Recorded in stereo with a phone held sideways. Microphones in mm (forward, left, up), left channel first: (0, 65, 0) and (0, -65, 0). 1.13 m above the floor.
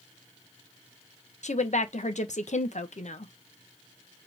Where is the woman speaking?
65° left (ahead or behind), 0.8 m.